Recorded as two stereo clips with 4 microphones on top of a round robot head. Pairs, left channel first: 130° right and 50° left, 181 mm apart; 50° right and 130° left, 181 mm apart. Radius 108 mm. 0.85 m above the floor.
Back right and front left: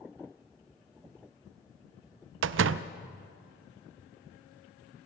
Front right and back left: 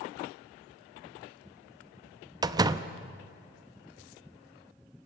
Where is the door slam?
60° left, 0.5 m.